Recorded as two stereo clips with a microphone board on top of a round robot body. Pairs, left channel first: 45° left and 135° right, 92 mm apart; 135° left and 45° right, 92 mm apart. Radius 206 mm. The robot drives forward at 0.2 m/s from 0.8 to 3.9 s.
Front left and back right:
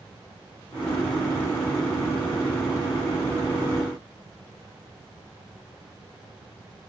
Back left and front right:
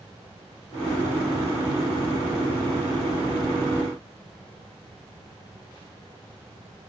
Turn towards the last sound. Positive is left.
No sound to turn to.